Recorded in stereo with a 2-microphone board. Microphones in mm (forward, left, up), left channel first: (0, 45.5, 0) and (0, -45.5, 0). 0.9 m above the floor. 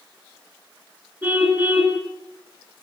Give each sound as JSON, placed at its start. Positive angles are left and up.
{"t": 1.2, "sound": "a car horn", "side_deg": -20, "distance_m": 6.5}